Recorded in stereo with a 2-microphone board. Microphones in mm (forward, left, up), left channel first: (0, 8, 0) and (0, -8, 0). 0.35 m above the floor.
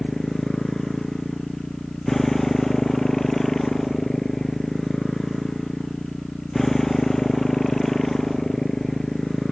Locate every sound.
0.0 s a motorcycle: 20° left (ahead or behind)